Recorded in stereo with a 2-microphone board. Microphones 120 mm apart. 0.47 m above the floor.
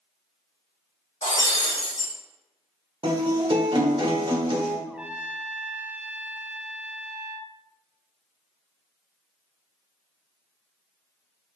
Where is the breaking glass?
85° left, 3 m.